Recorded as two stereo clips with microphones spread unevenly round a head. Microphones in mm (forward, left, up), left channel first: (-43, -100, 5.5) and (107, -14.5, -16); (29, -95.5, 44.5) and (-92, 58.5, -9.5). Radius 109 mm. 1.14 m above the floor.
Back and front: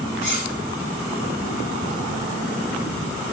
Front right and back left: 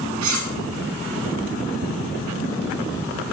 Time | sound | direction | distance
0.2 | cutlery clinking | 95° left | 1.2 m